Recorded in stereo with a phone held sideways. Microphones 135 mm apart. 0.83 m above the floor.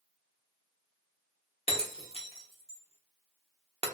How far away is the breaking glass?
About 0.7 m.